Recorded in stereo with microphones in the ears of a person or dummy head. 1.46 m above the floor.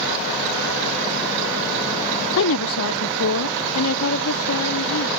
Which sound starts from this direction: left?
A woman speaking, at 2.4 s.